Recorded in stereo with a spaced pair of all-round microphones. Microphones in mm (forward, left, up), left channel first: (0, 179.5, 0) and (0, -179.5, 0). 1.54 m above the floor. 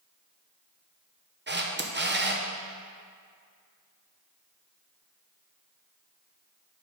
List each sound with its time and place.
1.5 s a camera shutter: 30° right (ahead or behind), 0.6 m